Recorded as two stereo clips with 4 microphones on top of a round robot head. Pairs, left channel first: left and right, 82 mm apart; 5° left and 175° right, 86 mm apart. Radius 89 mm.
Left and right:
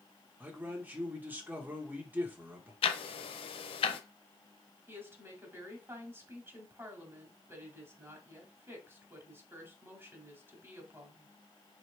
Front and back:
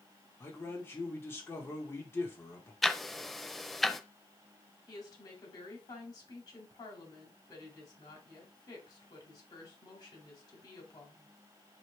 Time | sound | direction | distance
0.4 | a man speaking | 35° right | 1.2 m
2.8 | ticking | 95° left | 0.5 m
4.9 | a woman speaking | 35° right | 1.9 m